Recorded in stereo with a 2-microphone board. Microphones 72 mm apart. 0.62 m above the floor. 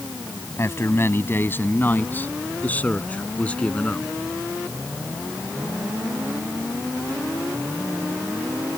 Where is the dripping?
No dripping in this recording.